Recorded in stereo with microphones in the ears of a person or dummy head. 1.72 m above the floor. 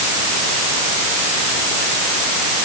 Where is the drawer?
I don't hear a drawer.